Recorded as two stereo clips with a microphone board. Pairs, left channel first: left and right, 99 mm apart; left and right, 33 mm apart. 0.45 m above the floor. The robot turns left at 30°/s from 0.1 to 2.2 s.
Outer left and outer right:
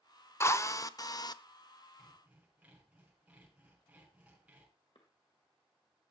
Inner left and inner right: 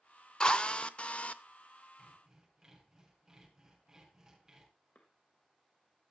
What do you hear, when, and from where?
0.4 s a drill: 25° left (ahead or behind), 0.6 m; by 1.4 s 45° left (ahead or behind), 0.6 m
2.0 s sawing: 10° right (ahead or behind), 5 m; by 4.7 s 15° right (ahead or behind), 5 m
5.0 s a cough: 60° left (ahead or behind), 1.8 m